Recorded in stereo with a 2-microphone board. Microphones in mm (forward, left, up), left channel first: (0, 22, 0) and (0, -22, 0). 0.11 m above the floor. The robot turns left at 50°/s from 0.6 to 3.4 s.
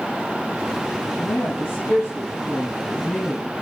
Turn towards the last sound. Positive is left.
turn(degrees=15)